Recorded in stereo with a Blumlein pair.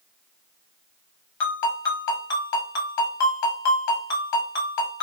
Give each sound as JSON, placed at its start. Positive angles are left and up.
{"t": 1.4, "sound": "a ringtone", "azimuth_deg": 45, "distance_m": 1.0}